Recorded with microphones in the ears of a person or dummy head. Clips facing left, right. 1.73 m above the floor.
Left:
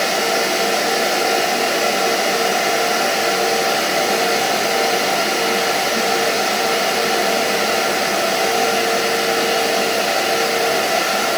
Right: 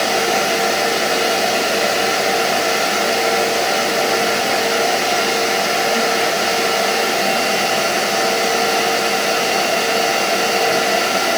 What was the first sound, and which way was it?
Only background noise.